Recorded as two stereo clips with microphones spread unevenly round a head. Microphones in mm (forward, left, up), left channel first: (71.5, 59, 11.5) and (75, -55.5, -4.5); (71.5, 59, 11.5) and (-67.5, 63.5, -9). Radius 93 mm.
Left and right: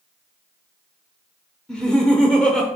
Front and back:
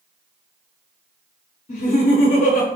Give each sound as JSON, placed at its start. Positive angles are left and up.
{"t": 1.7, "sound": "laughter", "azimuth_deg": 10, "distance_m": 0.7}